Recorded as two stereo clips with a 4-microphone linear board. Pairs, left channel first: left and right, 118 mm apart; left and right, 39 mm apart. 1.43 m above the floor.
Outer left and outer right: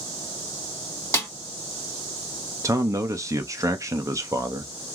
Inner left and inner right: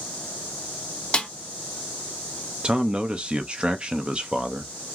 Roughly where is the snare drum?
Left.